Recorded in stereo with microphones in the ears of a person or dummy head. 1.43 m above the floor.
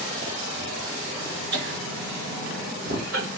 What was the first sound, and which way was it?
Laughter, 65° right (ahead or behind).